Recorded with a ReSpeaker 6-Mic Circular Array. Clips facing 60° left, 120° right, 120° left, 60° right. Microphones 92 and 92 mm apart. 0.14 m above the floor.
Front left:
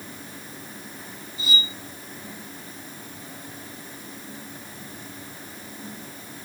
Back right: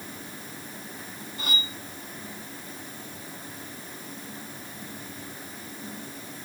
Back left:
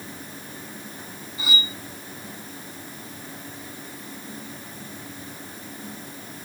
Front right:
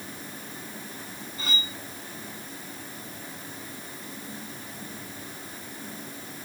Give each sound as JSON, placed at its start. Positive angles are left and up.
{"t": 1.4, "sound": "cutlery clinking", "azimuth_deg": -160}